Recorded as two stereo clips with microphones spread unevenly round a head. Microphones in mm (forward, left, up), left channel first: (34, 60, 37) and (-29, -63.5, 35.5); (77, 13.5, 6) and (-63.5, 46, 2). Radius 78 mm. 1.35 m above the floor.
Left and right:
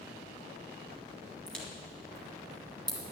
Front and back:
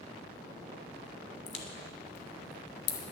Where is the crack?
20° right, 1.5 m.